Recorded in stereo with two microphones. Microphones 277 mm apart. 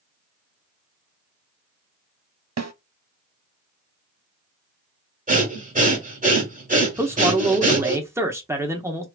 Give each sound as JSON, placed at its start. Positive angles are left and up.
{"t": 2.6, "sound": "a snare drum", "side_deg": -70, "distance_m": 0.6}
{"t": 5.3, "sound": "breathing", "side_deg": -30, "distance_m": 1.6}
{"t": 7.0, "sound": "a man speaking", "side_deg": -10, "distance_m": 0.8}